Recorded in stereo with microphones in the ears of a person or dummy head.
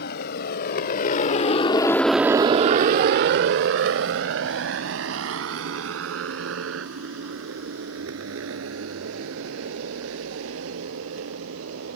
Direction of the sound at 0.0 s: 65° left (ahead or behind).